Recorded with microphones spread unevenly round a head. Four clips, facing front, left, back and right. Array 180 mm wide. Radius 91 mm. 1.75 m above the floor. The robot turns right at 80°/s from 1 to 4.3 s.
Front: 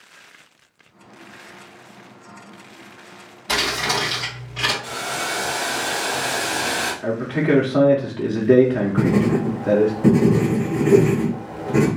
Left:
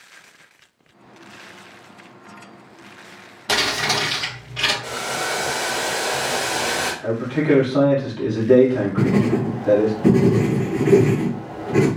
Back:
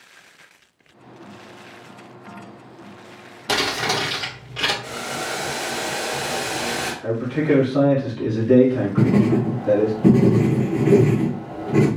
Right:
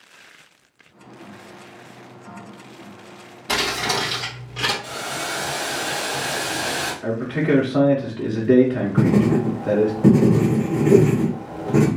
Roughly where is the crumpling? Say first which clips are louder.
Left 1 dB, back 1 dB; behind left.